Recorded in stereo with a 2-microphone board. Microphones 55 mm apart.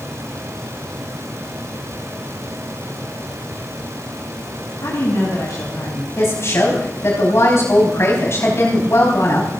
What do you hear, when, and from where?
4.8 s a woman speaking: 65° left (ahead or behind), 4.5 m
6.2 s a woman speaking: 55° left (ahead or behind), 4.5 m